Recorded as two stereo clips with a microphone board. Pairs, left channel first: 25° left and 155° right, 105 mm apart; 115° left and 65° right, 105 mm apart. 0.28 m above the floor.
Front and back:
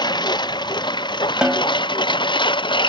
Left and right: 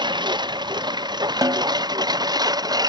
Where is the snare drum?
80° right.